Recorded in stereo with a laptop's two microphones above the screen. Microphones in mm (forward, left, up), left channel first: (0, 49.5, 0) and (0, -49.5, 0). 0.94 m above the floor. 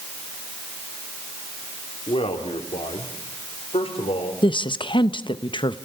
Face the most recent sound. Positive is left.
turn(degrees=55)  # may be behind; listen again after turning